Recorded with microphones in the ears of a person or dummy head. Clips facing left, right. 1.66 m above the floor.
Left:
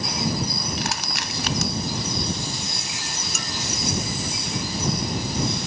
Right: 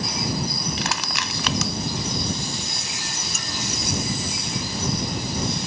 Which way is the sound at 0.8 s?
75° right (ahead or behind).